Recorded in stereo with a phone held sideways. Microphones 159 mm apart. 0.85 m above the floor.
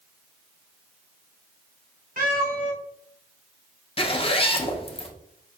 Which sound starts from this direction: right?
A cat meowing, at 2.2 s.